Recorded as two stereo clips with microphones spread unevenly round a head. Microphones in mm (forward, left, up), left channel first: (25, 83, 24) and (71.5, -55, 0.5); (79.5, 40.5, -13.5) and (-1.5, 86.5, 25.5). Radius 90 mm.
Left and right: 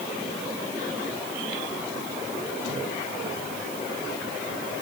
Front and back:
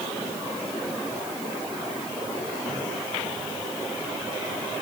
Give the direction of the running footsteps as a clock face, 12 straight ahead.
No running footsteps in this recording.